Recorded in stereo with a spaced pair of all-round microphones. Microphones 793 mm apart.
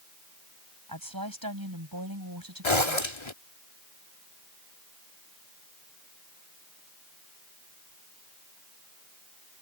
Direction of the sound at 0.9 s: 25° right (ahead or behind).